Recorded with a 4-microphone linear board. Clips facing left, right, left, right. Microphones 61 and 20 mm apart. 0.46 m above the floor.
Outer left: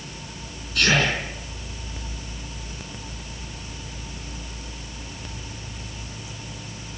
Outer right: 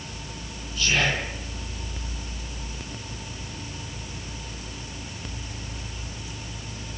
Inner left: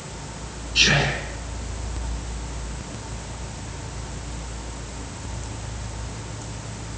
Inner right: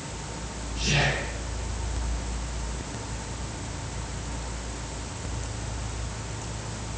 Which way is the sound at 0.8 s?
75° left (ahead or behind).